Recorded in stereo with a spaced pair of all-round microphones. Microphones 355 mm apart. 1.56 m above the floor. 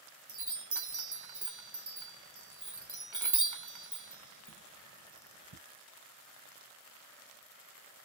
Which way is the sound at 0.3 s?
65° right (ahead or behind).